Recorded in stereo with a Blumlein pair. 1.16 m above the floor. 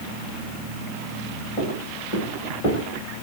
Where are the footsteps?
45° left, 3.5 m.